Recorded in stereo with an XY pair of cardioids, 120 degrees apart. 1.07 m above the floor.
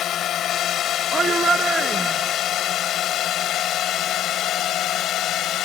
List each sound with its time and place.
0.0 s a drone: 60° left; by 5.7 s 65° left
1.1 s a shout: 25° right